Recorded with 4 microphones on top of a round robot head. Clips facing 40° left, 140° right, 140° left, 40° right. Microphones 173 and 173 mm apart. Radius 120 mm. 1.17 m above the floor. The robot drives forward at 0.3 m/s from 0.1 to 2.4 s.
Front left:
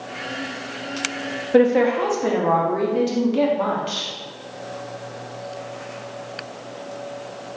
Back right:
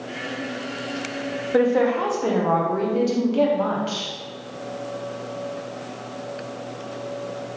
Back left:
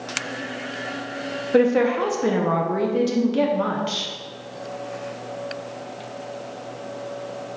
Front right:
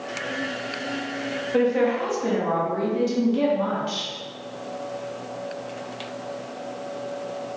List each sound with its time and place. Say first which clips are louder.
1.5 s a woman speaking: front left 3 dB, back left 3 dB; 105° left, 0.6 m; by 4.1 s 125° left, 0.7 m